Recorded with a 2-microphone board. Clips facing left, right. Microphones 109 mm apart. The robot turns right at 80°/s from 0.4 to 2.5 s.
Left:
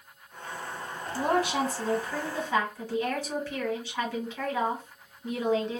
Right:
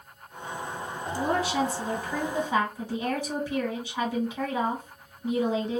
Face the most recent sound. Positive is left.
turn(degrees=-160)